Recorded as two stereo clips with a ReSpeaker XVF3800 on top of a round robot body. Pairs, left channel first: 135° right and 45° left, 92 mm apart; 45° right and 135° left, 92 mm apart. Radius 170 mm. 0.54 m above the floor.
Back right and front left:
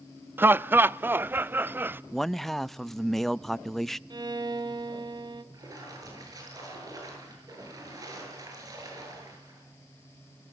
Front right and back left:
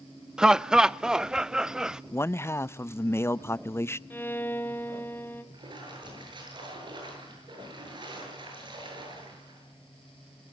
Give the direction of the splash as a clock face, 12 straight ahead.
9 o'clock.